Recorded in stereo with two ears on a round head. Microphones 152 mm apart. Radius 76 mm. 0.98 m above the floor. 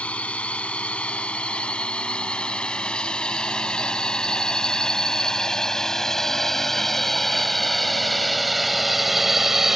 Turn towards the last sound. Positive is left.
turn(degrees=0)  # may be behind; listen again after turning